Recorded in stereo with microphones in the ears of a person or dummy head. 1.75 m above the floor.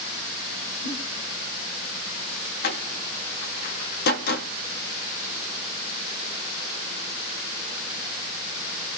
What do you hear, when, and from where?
0.8 s a giggle: 55° left (ahead or behind), 8.5 m
2.6 s a door slam: 60° left (ahead or behind), 2 m